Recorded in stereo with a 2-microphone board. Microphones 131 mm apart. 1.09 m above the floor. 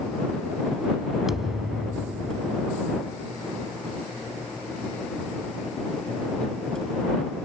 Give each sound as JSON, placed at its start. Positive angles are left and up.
{"t": 1.3, "sound": "a thud", "side_deg": -5}